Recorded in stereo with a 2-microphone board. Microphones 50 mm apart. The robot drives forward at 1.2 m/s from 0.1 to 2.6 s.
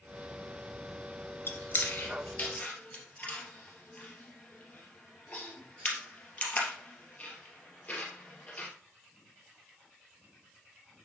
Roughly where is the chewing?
Left.